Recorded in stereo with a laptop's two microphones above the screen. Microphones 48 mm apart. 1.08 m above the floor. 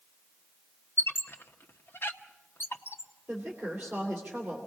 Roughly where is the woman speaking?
Centre.